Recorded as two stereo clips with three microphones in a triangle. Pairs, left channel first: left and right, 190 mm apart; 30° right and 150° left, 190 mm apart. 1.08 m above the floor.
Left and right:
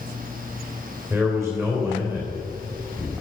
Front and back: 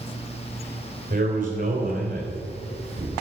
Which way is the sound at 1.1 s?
Straight behind.